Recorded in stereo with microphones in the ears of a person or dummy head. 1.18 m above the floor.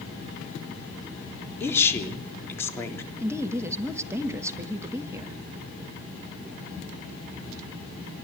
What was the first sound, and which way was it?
A woman speaking, 20° left (ahead or behind).